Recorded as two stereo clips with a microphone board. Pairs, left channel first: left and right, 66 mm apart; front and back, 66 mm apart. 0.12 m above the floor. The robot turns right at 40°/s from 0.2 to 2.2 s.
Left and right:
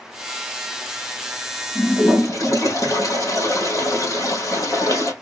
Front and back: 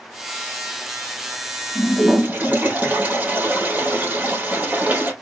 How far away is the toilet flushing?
About 1.9 m.